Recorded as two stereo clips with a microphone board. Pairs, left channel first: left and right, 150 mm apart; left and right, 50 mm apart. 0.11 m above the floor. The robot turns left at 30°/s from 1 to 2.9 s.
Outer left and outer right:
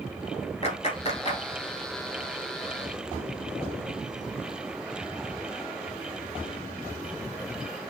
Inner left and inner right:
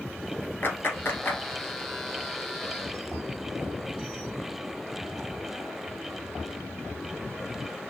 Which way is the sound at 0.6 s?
45° left (ahead or behind).